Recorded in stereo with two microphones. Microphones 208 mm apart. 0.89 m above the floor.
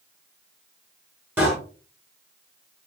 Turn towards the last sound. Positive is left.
turn(degrees=-10)  # may be behind; listen again after turning